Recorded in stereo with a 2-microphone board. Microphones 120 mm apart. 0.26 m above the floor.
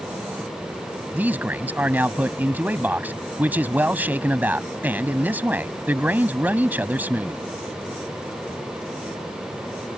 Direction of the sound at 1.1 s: 15° right (ahead or behind).